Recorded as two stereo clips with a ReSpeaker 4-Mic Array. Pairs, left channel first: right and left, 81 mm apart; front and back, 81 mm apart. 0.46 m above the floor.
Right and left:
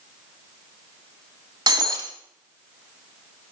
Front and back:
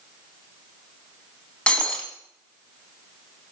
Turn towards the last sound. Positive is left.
turn(degrees=75)